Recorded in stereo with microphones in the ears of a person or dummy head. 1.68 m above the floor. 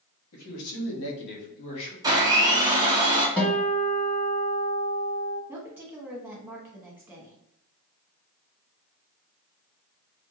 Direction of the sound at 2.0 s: 15° right (ahead or behind).